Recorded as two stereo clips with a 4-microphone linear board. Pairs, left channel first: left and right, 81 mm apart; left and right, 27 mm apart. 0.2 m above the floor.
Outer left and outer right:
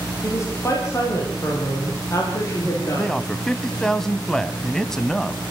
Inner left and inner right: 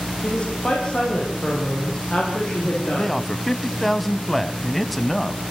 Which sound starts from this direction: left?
A woman speaking, at 0.2 s.